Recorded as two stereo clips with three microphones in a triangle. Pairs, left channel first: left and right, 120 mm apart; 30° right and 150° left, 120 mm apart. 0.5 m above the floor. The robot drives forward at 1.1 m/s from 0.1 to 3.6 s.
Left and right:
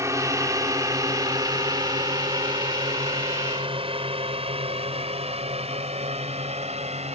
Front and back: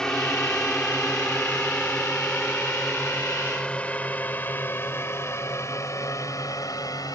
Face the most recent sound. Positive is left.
turn(degrees=-85)